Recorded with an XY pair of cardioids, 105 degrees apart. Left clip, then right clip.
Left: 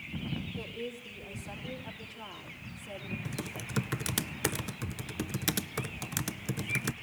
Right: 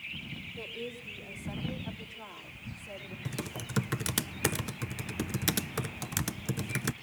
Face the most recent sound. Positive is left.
turn(degrees=-10)